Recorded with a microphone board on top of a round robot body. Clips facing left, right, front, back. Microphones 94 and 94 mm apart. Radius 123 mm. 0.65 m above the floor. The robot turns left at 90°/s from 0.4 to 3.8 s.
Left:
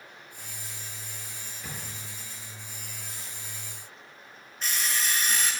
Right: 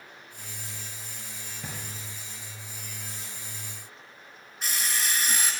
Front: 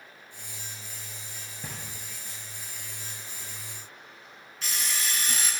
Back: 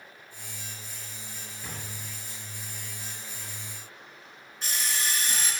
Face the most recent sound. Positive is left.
turn(degrees=-5)